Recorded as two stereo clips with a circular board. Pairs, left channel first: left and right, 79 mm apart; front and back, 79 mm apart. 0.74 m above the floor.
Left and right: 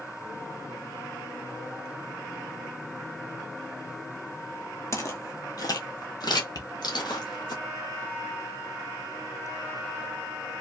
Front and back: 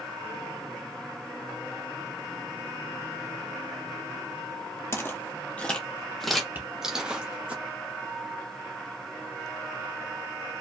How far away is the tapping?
About 1.3 m.